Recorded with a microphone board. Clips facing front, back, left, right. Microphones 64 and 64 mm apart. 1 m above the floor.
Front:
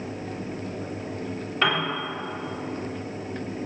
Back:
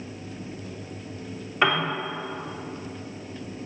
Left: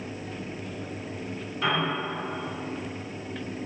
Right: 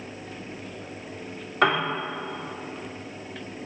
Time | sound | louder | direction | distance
1.6 | a piano | back 2 dB, right 5 dB | 105° right | 3 m